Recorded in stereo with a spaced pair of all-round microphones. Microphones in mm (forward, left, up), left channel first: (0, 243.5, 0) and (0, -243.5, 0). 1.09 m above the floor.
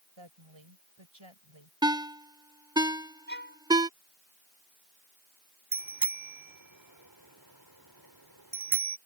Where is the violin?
20° left (ahead or behind).